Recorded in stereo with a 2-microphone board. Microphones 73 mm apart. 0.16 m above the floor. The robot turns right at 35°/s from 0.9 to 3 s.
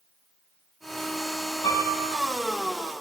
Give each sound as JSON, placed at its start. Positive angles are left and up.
{"t": 1.6, "sound": "a piano", "side_deg": 80, "distance_m": 4.0}